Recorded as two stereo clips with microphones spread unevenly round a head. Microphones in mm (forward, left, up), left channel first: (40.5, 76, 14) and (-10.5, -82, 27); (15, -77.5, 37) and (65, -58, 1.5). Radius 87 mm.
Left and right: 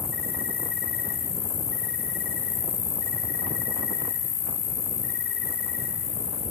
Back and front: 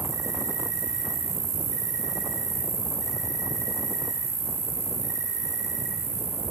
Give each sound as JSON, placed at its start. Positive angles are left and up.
{"t": 0.0, "sound": "an insect", "azimuth_deg": 40, "distance_m": 9.0}